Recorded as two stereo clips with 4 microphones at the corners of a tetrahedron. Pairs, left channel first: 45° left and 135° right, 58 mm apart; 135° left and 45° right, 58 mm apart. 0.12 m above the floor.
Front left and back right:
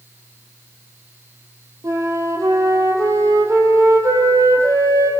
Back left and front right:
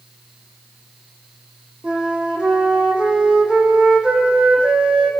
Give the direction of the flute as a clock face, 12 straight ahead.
4 o'clock.